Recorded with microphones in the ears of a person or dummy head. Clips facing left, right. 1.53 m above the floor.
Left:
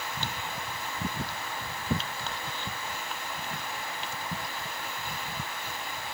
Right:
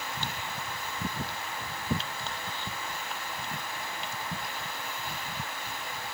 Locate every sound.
Only background noise.